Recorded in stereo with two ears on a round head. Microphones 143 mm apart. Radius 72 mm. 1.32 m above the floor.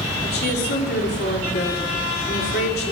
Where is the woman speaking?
60° left (ahead or behind), 3 m.